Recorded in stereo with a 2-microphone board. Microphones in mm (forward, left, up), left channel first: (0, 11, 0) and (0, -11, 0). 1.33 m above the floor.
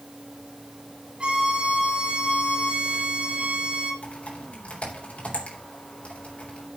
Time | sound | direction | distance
1.2 | a violin | 55° right (ahead or behind) | 3 m
4.0 | typing on a keyboard | 75° left (ahead or behind) | 4 m